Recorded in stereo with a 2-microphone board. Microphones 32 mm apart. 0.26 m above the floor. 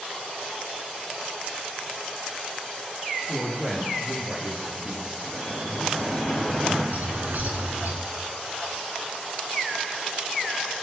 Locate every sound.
3.3 s a woman speaking: 5° right (ahead or behind), 6 m; by 5.1 s 25° right (ahead or behind), 5 m
5.2 s dripping: 10° right (ahead or behind), 5.5 m
6.9 s a bird: 65° right (ahead or behind), 2.5 m